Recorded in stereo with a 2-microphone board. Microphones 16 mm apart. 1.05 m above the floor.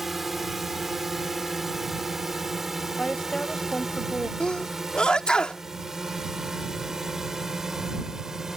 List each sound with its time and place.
0.0 s a drone: 15° right (ahead or behind); by 8.6 s 35° right (ahead or behind)
3.0 s a woman speaking: 55° left (ahead or behind)
4.4 s a sneeze: 80° left